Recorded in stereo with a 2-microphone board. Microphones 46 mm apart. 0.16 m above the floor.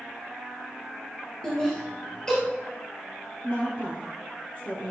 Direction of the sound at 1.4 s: 15° left (ahead or behind).